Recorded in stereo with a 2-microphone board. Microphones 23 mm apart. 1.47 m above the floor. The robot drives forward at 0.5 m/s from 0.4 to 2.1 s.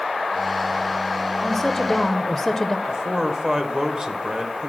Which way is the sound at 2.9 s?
40° right (ahead or behind).